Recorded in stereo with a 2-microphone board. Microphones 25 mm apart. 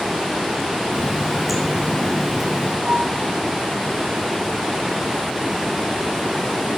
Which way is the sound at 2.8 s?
75° right (ahead or behind).